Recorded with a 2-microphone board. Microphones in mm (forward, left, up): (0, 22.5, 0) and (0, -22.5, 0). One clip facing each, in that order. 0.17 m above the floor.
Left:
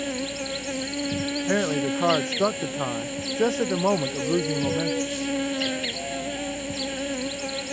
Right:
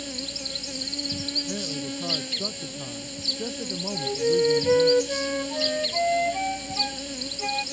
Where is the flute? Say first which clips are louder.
Right 2 dB; 65° right (ahead or behind).